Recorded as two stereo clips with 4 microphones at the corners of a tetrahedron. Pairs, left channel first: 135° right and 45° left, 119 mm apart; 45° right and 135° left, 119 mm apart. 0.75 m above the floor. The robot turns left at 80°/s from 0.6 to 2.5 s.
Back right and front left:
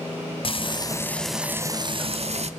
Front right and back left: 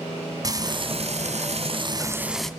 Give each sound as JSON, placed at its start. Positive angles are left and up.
{"t": 0.4, "sound": "frying", "azimuth_deg": -170, "distance_m": 1.1}